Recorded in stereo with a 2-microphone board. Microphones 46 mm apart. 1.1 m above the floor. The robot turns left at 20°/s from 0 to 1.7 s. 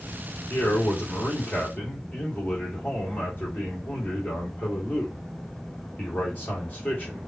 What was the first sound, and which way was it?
A man speaking, 65° left (ahead or behind).